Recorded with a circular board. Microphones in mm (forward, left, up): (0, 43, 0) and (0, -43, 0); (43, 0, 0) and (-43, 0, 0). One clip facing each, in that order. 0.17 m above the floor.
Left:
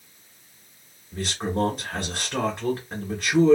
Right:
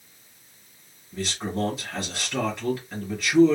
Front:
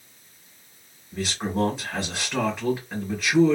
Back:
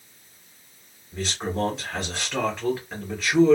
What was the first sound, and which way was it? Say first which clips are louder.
A man speaking: left 2 dB, front 1 dB; 85° left.